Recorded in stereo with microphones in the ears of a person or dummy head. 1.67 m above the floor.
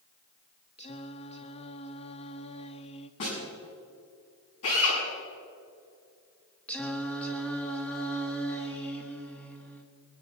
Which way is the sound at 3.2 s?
70° left (ahead or behind).